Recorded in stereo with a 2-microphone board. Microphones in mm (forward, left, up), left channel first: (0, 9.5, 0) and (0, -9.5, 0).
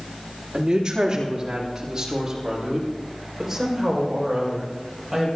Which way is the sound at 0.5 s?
45° right (ahead or behind).